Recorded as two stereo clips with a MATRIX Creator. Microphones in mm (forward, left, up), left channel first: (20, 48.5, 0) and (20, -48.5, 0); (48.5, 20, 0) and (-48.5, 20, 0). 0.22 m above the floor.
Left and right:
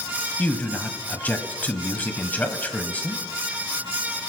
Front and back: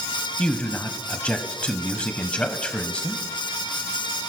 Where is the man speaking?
55° left, 1.0 m.